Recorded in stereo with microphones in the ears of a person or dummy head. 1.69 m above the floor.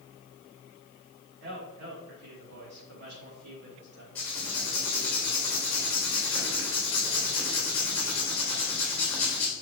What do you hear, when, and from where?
1.4 s a man speaking: 60° right (ahead or behind), 3.5 m
4.2 s writing: 10° left (ahead or behind), 3.5 m